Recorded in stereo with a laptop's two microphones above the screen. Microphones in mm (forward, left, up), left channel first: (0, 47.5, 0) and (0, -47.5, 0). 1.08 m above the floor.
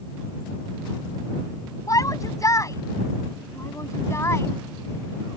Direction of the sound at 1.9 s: 35° left (ahead or behind).